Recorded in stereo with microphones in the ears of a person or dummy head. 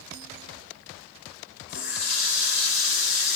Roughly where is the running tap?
Left.